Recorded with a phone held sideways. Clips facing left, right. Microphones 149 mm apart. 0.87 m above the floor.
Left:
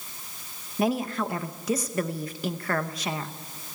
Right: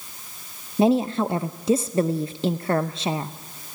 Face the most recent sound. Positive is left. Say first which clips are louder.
# right 7 dB
turn(degrees=-25)  # may be behind; listen again after turning